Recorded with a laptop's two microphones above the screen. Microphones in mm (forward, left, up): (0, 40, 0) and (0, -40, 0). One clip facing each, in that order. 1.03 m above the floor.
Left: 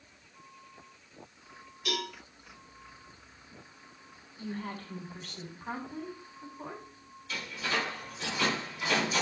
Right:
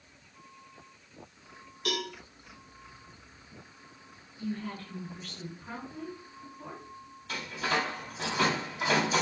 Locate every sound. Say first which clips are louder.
1.9 s a cowbell: right 2 dB; 65° right (ahead or behind), 2.5 m
4.4 s a woman speaking: right 2 dB; 60° left (ahead or behind), 2 m
7.3 s a door slam: right 3 dB; 70° right (ahead or behind), 2.5 m